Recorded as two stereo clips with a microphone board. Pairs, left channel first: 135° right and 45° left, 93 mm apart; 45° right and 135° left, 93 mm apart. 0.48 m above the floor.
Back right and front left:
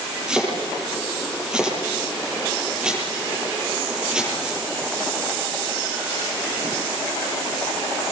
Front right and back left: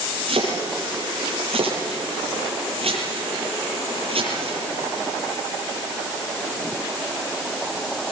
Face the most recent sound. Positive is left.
turn(degrees=125)